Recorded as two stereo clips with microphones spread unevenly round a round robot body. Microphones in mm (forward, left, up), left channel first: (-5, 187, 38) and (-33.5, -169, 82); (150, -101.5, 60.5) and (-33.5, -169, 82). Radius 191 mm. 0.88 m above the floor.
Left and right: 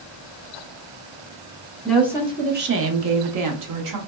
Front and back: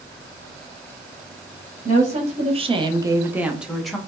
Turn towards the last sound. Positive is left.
turn(degrees=-65)